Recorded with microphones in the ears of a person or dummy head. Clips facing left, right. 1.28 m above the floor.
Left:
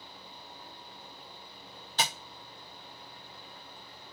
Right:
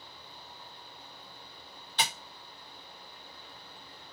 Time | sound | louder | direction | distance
2.0 | tapping | left 1 dB | 40° left (ahead or behind) | 0.9 m